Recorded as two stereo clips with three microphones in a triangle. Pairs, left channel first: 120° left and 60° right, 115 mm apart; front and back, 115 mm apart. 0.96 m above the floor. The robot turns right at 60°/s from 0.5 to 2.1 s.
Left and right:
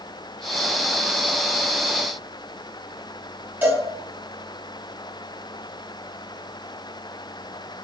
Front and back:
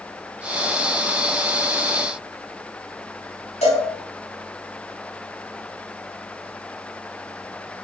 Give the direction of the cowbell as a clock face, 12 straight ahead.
12 o'clock.